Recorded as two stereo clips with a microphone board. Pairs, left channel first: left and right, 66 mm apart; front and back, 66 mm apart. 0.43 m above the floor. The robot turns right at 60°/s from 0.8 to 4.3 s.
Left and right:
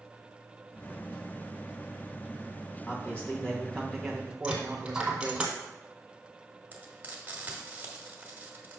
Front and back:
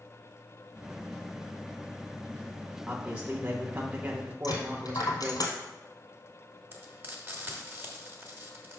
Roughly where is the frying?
Behind right.